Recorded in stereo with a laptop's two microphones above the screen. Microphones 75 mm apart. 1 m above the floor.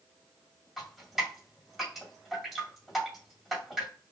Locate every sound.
0.8 s dripping: centre (ahead or behind), 2.0 m